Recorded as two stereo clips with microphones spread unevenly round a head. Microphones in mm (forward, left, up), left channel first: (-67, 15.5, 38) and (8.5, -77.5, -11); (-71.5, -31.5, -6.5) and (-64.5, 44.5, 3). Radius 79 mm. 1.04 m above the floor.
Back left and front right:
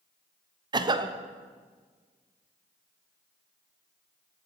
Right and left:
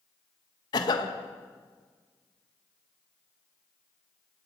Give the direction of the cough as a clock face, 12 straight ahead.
3 o'clock.